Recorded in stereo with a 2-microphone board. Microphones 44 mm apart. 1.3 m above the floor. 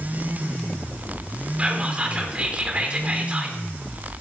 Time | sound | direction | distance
1.6 | whispering | 25° right (ahead or behind) | 3.5 m